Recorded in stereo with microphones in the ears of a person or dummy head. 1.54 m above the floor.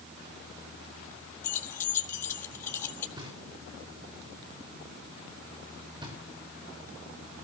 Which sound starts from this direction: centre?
Keys jangling, at 1.4 s.